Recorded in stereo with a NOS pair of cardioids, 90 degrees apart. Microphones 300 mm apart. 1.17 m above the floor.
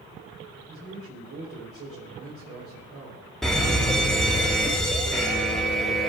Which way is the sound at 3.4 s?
Straight ahead.